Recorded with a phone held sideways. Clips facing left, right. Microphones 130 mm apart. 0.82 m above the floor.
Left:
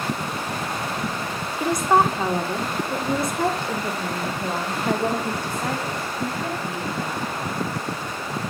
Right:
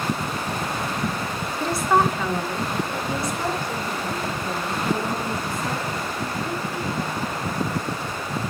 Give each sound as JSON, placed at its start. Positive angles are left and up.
{"t": 1.6, "sound": "a woman speaking", "side_deg": 15, "distance_m": 1.9}